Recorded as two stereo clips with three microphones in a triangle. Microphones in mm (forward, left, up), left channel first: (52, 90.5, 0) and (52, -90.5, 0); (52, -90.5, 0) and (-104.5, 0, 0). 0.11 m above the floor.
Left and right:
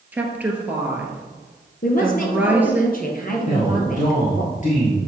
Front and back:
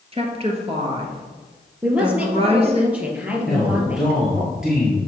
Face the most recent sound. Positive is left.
turn(degrees=65)